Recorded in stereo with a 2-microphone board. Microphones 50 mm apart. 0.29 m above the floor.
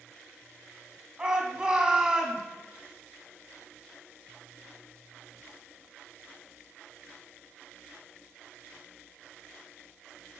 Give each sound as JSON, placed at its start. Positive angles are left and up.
{"t": 1.2, "sound": "a shout", "side_deg": -20, "distance_m": 2.0}